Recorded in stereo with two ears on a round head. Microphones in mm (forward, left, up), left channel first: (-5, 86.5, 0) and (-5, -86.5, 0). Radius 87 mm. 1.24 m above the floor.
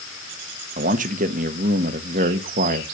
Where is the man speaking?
45° right (ahead or behind), 1.4 m.